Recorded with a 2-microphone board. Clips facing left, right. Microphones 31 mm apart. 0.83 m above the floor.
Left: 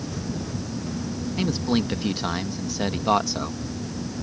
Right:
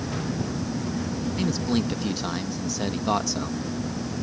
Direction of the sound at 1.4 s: 25° left (ahead or behind).